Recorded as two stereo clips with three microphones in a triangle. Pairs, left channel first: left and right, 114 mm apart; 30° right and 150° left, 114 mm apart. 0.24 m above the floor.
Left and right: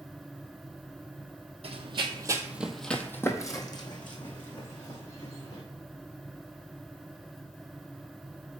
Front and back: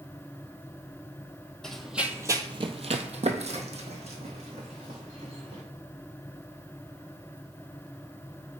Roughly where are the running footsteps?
Behind right.